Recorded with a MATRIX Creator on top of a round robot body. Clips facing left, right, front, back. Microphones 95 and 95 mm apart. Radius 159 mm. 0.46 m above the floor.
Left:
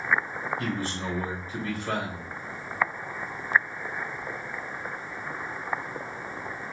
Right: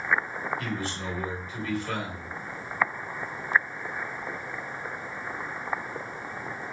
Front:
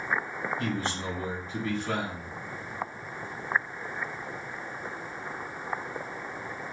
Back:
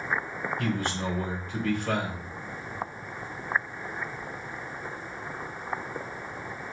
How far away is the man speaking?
About 3 m.